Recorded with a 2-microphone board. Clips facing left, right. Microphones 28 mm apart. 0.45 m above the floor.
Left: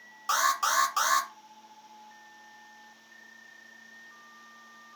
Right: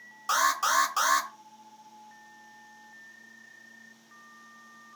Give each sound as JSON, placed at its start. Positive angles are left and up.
{"t": 0.3, "sound": "an alarm", "side_deg": 5, "distance_m": 0.9}